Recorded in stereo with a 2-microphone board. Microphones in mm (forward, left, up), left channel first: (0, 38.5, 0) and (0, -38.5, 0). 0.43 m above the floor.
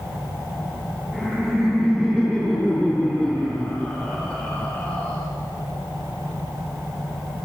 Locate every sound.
1.1 s laughter: 5° left (ahead or behind), 7 m; by 5.2 s 25° left (ahead or behind), 4 m